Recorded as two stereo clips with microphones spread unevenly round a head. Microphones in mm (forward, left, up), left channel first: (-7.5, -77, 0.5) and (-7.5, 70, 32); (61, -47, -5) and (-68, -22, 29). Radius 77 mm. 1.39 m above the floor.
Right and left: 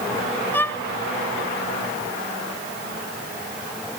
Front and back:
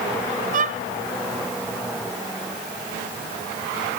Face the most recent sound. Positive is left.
turn(degrees=-170)